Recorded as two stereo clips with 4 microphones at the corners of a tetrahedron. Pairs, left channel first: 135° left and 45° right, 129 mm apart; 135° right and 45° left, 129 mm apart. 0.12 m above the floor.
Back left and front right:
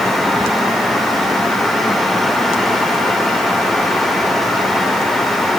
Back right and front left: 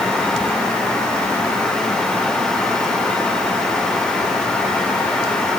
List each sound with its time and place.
Only background noise.